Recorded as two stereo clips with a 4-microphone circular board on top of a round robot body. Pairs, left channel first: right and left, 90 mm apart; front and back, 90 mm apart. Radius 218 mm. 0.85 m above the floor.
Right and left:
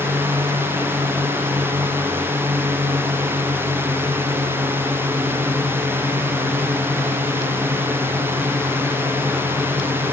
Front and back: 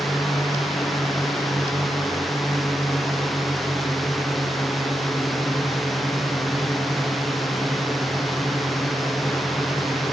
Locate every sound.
0.0 s a drone: 90° left